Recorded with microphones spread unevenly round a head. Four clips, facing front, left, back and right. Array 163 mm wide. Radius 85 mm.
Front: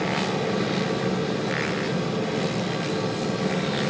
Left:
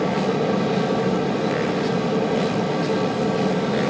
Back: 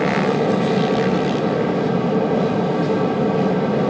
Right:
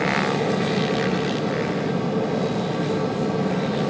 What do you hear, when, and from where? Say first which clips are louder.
0.0 s a fan: left 1 dB, back 8 dB; 165° left, 2.5 m